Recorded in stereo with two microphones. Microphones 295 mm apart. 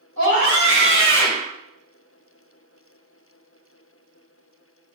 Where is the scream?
85° right, 5.5 m; by 1.5 s 80° right, 5 m.